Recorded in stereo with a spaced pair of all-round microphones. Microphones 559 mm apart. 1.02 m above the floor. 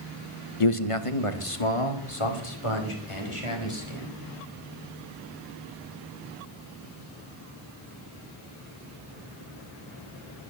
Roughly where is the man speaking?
Left.